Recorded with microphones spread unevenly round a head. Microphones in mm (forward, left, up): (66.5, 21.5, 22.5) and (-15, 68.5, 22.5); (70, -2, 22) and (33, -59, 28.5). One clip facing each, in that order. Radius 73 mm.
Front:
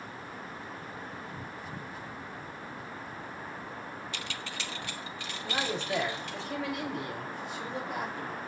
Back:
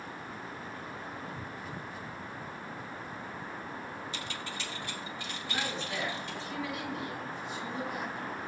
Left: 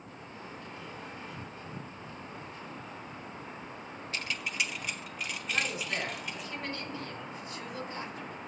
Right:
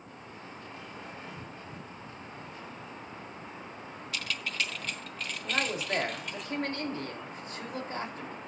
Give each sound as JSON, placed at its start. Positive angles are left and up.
{"t": 4.1, "sound": "keys jangling", "azimuth_deg": -5, "distance_m": 0.5}
{"t": 5.4, "sound": "a man speaking", "azimuth_deg": -80, "distance_m": 3.0}